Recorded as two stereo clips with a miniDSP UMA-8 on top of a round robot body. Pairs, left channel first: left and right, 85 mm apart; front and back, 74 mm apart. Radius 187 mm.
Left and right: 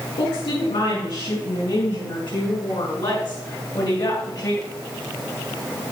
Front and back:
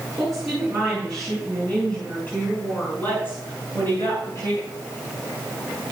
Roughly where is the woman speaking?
Left.